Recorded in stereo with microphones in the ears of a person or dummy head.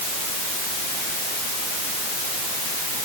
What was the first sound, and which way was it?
Only background noise.